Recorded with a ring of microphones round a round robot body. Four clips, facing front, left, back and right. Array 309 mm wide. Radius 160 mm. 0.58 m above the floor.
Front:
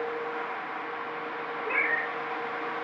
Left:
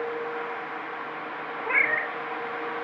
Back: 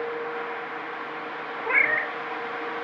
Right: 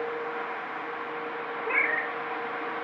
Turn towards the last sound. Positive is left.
turn(degrees=160)